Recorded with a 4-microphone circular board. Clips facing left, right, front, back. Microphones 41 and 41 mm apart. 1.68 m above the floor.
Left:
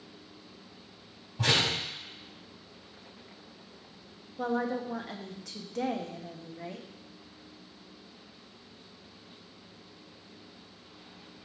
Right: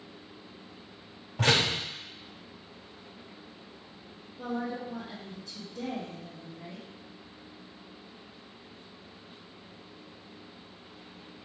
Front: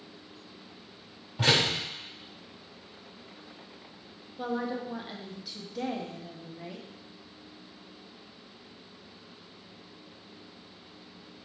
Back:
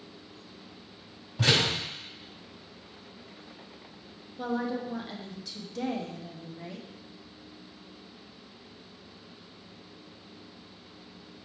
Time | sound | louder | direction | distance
1.4 | a door slam | right 2 dB, even | 70° right | 3.5 m
4.4 | a woman speaking | left 4 dB, back 1 dB | 85° left | 1.2 m